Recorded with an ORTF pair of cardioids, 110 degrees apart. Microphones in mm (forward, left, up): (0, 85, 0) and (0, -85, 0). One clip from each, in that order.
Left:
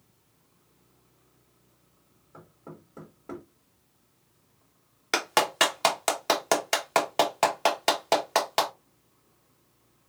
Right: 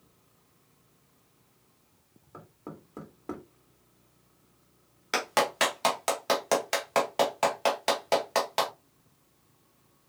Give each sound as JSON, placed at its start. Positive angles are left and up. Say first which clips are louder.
{"t": 2.3, "sound": "knocking", "louder": "right 2 dB", "azimuth_deg": -30, "distance_m": 1.8}
{"t": 5.1, "sound": "a clap", "louder": "left 2 dB", "azimuth_deg": 25, "distance_m": 1.0}